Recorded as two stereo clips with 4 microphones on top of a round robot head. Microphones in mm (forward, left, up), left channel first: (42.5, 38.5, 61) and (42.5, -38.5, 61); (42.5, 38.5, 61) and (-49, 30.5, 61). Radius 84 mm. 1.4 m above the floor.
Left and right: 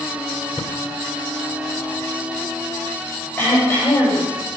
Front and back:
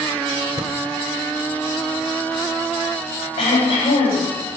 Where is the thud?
140° left, 1.7 m.